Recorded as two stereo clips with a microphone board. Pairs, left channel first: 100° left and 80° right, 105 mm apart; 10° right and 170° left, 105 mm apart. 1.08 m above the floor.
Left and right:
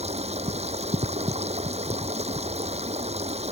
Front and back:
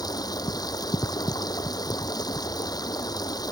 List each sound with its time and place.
0.0 s running water: 65° right